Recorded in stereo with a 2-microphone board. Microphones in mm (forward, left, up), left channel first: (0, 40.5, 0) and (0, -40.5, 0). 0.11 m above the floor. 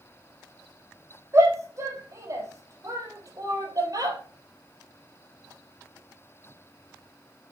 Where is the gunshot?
I don't hear a gunshot.